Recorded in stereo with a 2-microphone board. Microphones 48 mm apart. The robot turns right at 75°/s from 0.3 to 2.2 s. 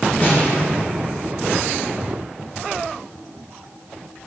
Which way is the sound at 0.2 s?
45° left (ahead or behind).